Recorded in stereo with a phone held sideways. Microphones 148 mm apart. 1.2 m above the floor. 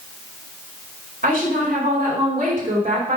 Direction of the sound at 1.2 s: 65° right (ahead or behind).